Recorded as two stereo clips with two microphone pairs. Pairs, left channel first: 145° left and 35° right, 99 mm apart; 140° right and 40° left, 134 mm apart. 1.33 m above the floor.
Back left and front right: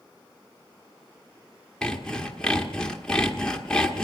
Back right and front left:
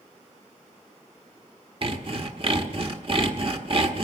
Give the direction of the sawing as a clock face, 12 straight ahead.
10 o'clock.